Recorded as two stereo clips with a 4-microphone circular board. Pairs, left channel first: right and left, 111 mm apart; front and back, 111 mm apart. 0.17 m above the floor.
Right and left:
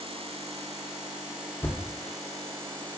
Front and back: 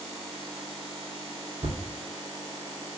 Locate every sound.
1.6 s a thud: 165° right, 2.5 m